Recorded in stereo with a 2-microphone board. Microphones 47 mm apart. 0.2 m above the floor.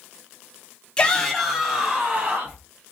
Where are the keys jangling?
I don't hear keys jangling.